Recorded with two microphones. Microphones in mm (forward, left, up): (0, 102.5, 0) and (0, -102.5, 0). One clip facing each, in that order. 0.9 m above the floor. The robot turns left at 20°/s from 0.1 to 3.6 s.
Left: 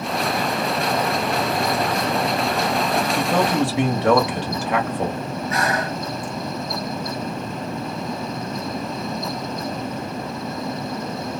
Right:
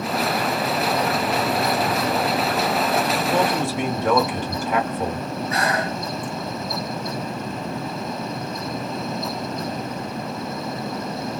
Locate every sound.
3.2 s a man speaking: 70° left (ahead or behind), 1.2 m; by 5.3 s 75° left (ahead or behind), 1.2 m
5.5 s breathing: 30° right (ahead or behind), 1.2 m